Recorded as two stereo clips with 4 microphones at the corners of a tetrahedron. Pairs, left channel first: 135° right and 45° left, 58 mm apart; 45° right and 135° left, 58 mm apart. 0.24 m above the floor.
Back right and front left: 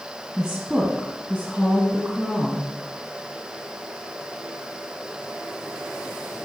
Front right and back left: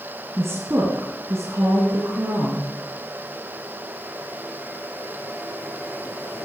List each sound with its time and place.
0.4 s a woman speaking: 115° left, 1.6 m; by 2.7 s 130° left, 3 m